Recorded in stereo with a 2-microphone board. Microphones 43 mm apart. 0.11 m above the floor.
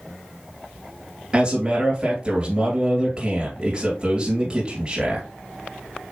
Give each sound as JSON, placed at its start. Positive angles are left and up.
{"t": 1.3, "sound": "a man speaking", "side_deg": -20, "distance_m": 2.5}